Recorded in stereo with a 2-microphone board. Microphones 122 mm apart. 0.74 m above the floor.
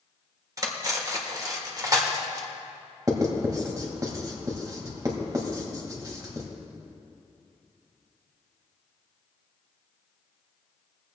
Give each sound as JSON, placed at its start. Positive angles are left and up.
{"t": 0.6, "sound": "cutlery clinking", "side_deg": -30, "distance_m": 1.4}
{"t": 3.1, "sound": "writing", "side_deg": -30, "distance_m": 2.0}